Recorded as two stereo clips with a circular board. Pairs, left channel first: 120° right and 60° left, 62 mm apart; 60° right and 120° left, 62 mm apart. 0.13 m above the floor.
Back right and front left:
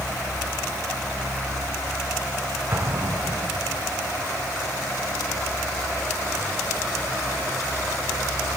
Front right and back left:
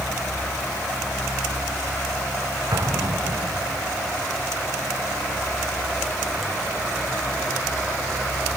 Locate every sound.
2.7 s an explosion: 110° left, 5 m